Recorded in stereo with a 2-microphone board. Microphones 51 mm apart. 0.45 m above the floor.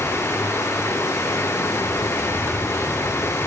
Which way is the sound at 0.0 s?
80° left.